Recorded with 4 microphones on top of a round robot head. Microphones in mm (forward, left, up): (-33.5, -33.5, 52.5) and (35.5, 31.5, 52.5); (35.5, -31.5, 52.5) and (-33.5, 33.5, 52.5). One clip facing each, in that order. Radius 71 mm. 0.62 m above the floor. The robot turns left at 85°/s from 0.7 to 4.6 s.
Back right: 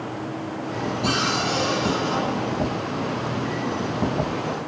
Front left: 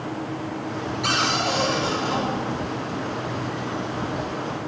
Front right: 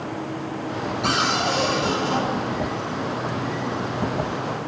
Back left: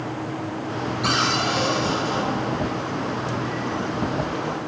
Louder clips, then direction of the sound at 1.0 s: Front left 1 dB, front right 1 dB; 50° left.